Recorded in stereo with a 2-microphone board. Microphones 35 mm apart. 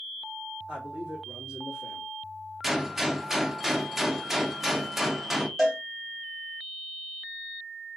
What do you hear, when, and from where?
0.7 s a man speaking: 20° right (ahead or behind), 2.5 m
2.6 s a gunshot: 10° right (ahead or behind), 0.6 m
5.6 s a cowbell: 10° right (ahead or behind), 1.7 m